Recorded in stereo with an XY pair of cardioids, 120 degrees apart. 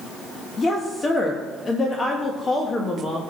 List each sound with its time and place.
0.6 s a woman speaking: 30° left, 1.2 m